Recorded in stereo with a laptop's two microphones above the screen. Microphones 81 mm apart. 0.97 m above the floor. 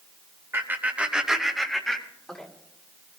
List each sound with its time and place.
0.5 s laughter: 30° right (ahead or behind), 1.3 m; by 2.5 s 10° left (ahead or behind), 3 m